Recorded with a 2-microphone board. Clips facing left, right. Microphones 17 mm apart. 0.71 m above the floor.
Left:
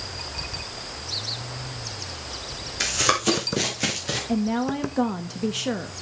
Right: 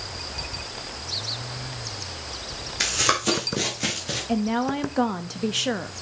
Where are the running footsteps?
5° right (ahead or behind), 1.8 m; by 4.2 s 20° left (ahead or behind), 3.5 m.